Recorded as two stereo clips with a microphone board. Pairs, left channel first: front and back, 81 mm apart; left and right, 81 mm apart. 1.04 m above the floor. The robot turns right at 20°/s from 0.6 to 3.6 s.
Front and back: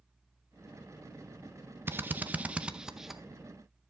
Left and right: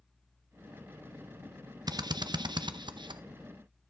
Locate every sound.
1.9 s a drill: 120° right, 0.6 m; by 3.2 s 95° right, 0.6 m